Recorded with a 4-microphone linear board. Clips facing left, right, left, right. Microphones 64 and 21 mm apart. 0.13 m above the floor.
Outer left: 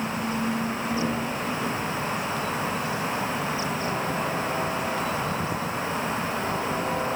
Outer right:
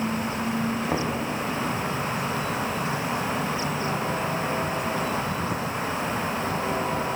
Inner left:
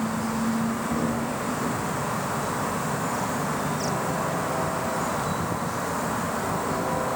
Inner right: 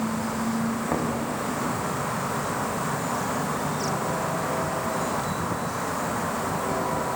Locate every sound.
0.9 s knocking: 65° right (ahead or behind), 6 m